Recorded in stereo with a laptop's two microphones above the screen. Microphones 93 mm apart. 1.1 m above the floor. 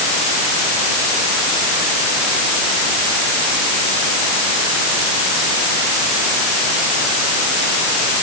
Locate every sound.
Only background noise.